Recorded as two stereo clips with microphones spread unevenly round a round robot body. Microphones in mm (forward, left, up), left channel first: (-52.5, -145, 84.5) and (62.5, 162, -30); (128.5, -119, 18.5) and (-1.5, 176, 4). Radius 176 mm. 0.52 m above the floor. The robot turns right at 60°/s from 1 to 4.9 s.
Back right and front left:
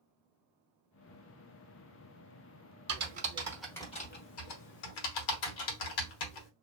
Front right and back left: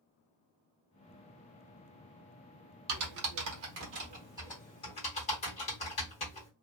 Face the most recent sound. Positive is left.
turn(degrees=-140)